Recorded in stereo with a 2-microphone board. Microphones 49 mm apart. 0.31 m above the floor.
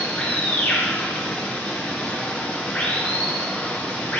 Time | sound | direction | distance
0.0 | running water | 25° left (ahead or behind) | 4 m